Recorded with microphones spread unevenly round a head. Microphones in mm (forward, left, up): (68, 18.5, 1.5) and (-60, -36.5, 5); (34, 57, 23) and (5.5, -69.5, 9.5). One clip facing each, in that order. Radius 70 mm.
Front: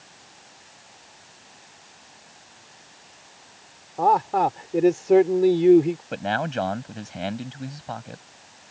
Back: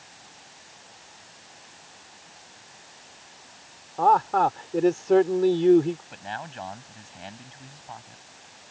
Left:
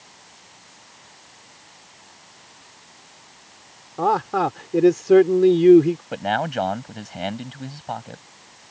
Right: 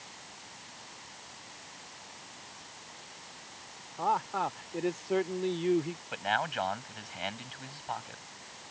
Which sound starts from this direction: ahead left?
A man speaking, at 6.1 s.